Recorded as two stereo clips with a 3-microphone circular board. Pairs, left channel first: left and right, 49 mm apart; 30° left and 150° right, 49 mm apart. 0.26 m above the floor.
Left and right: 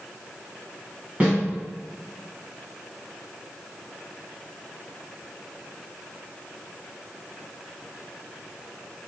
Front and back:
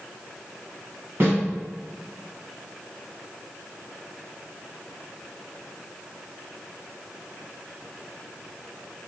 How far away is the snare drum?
About 1.9 m.